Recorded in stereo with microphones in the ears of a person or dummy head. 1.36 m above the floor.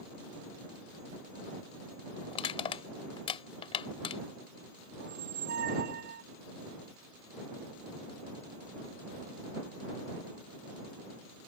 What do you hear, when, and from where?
2.3 s crushing: 30° left (ahead or behind)
5.0 s a squeak: 60° right (ahead or behind)